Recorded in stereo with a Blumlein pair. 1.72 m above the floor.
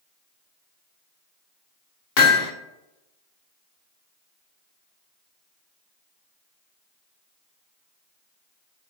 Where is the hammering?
45° left, 0.9 m.